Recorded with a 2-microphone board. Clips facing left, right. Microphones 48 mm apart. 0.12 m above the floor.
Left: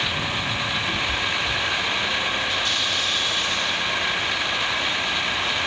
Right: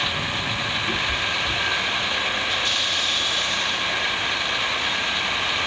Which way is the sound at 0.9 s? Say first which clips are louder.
Even; 20° right (ahead or behind).